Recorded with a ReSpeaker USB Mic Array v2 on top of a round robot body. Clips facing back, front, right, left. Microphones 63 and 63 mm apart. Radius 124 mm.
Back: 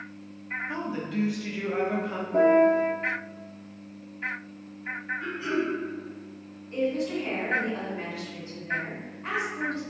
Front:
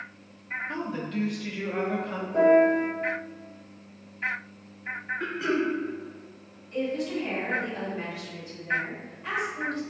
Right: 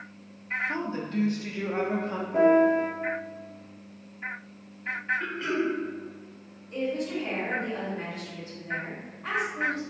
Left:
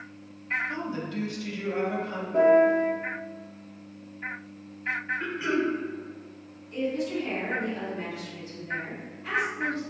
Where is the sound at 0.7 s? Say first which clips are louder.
Even, right 2 dB; 100° right, 0.8 m.